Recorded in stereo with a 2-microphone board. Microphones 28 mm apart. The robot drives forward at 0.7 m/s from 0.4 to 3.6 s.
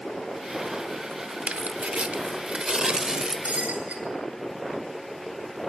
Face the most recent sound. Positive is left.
turn(degrees=-55)  # may be behind; listen again after turning